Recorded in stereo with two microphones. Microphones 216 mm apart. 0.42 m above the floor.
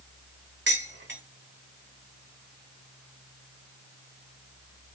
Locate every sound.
0.7 s dishes clattering: 55° right (ahead or behind), 1.1 m